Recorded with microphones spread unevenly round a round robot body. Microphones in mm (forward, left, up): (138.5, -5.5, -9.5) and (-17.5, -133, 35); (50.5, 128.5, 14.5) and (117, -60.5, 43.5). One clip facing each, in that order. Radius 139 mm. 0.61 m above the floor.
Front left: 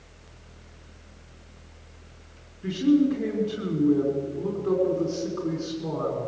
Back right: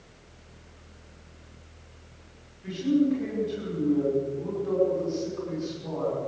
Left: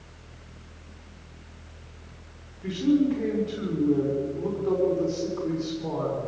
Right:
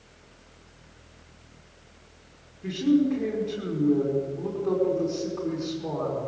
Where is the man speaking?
15° left, 6 m.